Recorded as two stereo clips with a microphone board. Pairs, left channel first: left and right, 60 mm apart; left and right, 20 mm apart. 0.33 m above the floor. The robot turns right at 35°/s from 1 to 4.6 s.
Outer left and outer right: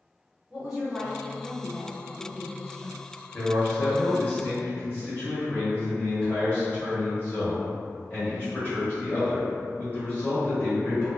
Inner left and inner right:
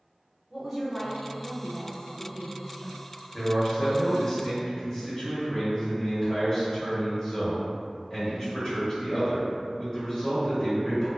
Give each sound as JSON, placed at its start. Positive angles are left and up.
{"t": 0.5, "sound": "a woman speaking", "azimuth_deg": -15, "distance_m": 1.2}
{"t": 3.3, "sound": "a man speaking", "side_deg": 25, "distance_m": 0.9}